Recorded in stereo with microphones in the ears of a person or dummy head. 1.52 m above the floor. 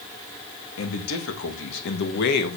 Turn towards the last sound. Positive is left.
turn(degrees=55)  # may be behind; listen again after turning